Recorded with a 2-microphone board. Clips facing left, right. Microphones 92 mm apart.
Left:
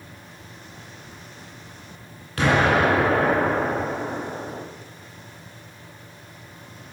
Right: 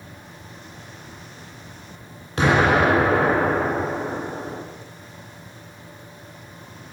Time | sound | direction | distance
2.4 | an explosion | 25° right (ahead or behind) | 1.5 m